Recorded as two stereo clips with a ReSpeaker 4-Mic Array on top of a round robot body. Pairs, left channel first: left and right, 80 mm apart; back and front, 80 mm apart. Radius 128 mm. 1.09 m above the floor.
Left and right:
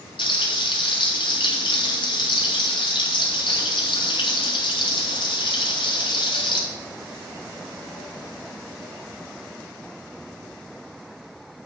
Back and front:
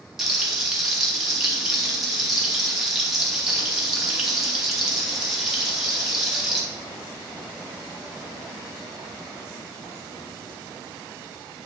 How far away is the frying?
About 2.5 m.